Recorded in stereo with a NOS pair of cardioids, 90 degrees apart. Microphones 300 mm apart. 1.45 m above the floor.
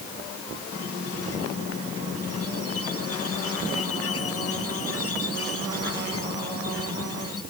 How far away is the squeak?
About 6 m.